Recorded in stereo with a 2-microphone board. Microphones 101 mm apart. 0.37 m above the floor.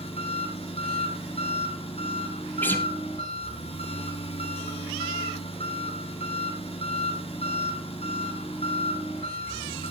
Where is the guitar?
20° left (ahead or behind), 1.9 m.